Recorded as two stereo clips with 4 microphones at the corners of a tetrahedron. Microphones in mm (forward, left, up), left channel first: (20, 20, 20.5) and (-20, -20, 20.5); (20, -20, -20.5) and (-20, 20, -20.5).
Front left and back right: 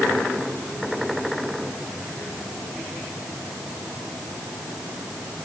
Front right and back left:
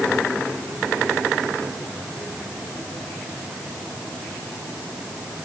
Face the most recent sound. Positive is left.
No sound to turn to.